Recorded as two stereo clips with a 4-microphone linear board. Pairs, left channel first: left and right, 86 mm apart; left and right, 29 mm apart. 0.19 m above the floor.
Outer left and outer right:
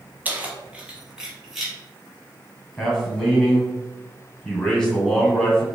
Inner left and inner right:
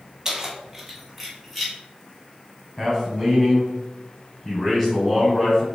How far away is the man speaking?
About 1.5 m.